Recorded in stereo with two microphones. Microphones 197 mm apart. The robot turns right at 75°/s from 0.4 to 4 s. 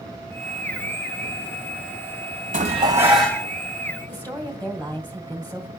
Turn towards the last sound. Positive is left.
turn(degrees=10)  # may be behind; listen again after turning